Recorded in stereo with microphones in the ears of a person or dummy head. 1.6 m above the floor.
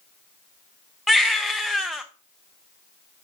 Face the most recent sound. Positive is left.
turn(degrees=-5)  # may be behind; listen again after turning